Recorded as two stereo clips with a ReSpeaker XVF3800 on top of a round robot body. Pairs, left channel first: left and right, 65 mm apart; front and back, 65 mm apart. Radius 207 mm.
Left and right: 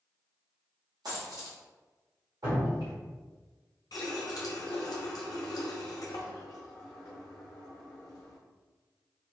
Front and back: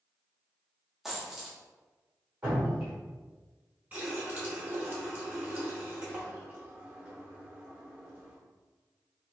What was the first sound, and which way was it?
A dropped coin, 95° right.